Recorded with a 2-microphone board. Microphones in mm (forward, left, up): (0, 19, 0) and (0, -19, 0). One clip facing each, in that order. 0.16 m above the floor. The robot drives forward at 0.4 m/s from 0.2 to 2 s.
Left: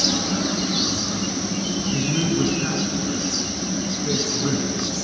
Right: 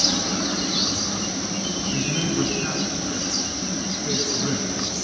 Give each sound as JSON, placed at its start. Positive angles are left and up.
{"t": 1.9, "sound": "a man speaking", "side_deg": 0, "distance_m": 1.3}